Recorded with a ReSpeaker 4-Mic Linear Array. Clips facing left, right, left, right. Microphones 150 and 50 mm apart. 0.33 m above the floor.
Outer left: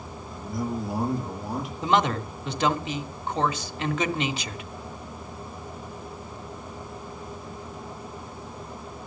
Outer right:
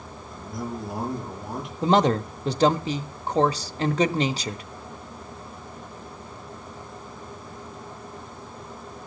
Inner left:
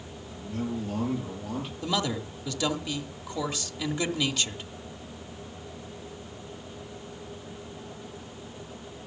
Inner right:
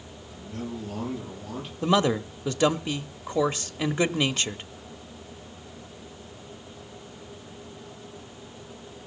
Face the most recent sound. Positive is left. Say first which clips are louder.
# outer right 4 dB, inner right 8 dB
turn(degrees=-35)  # may be behind; listen again after turning